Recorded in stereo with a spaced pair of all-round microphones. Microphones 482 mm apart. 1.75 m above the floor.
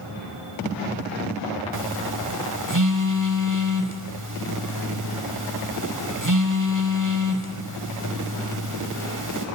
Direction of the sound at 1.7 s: 40° right (ahead or behind).